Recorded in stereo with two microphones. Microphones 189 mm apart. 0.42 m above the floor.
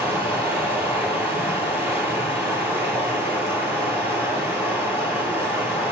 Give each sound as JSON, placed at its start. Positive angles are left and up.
{"t": 0.0, "sound": "running water", "side_deg": -15, "distance_m": 9.0}